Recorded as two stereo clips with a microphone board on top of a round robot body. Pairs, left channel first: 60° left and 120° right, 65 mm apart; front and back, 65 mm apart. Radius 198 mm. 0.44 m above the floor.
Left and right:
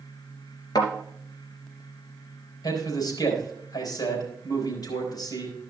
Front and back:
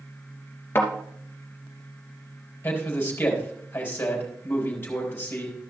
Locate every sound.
0.8 s a thud: 55° left, 3 m
2.6 s a man speaking: 55° left, 4.5 m